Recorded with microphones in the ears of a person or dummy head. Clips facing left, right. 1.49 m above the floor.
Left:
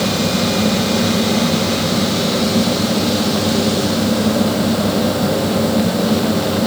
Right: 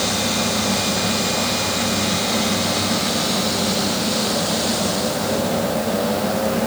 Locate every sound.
Only background noise.